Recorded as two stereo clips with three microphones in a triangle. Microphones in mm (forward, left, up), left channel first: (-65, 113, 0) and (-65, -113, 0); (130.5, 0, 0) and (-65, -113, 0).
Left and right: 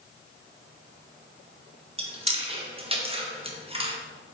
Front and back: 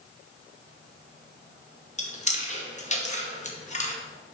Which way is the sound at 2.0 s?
30° right.